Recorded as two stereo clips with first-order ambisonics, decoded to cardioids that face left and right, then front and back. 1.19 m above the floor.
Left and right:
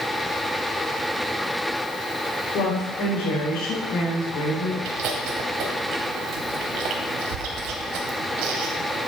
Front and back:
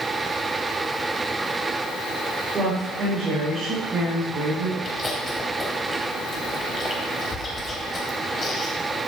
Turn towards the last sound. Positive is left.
turn(degrees=-75)